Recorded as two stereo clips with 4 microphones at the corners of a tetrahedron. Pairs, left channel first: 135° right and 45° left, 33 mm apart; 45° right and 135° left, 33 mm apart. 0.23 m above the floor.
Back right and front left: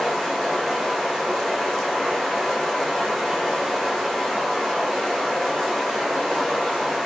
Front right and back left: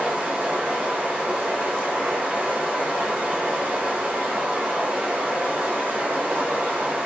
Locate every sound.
0.0 s running water: 140° left, 6 m